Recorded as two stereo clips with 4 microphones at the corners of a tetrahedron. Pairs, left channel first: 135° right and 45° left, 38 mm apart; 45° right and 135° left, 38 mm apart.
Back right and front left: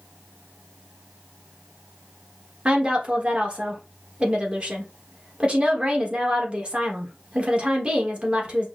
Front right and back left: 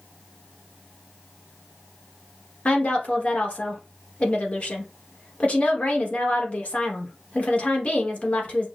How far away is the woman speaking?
About 1.2 m.